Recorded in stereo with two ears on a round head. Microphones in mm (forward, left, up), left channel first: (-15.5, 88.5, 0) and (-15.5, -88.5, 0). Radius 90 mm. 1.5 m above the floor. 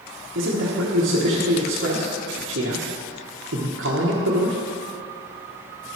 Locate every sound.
0.3 s a man speaking: 60° right (ahead or behind), 1.3 m